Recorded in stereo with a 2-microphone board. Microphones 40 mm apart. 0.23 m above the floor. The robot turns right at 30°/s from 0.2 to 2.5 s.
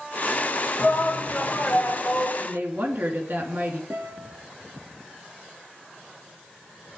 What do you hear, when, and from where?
0.8 s a shout: 90° left, 2.5 m; by 2.3 s 135° left, 2.5 m
2.4 s a woman speaking: 65° right (ahead or behind), 3.5 m
3.9 s a guitar: 80° right, 4 m